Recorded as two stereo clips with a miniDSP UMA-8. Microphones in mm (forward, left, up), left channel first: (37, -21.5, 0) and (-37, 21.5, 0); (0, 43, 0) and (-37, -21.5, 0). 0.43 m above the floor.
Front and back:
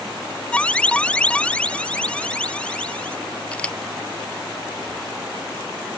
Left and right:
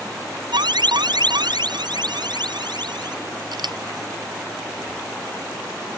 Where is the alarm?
105° right.